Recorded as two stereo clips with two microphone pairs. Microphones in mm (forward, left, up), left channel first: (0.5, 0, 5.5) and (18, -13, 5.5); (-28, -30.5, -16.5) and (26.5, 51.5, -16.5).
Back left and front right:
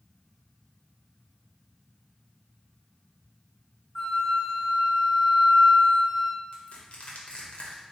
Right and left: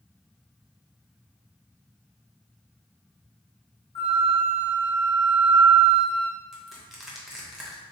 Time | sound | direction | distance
4.0 | a flute | 155° right | 1.6 m
6.5 | crushing | 145° left | 0.8 m